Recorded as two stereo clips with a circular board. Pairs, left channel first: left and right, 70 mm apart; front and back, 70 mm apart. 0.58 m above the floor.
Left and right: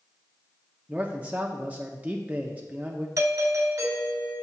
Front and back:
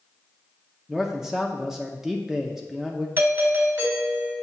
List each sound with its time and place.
0.9 s a man speaking: 105° right, 0.6 m
3.2 s a doorbell: 130° right, 3.5 m